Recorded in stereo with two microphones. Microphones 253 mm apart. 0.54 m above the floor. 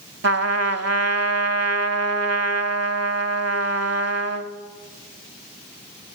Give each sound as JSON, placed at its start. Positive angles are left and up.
{"t": 0.2, "sound": "a trumpet", "side_deg": -70, "distance_m": 0.8}